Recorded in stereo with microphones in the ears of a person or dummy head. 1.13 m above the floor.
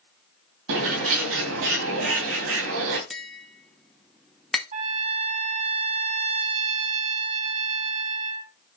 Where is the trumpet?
40° right (ahead or behind), 2 m.